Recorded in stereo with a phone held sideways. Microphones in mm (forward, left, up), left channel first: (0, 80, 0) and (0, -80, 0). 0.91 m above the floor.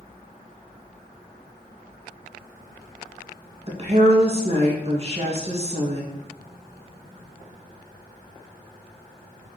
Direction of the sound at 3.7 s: 40° right (ahead or behind).